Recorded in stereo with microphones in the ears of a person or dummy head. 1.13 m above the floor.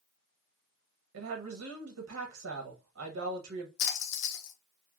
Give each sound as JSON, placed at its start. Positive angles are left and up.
{"t": 1.1, "sound": "a woman speaking", "side_deg": -85, "distance_m": 0.7}
{"t": 3.8, "sound": "a splash", "side_deg": 75, "distance_m": 0.9}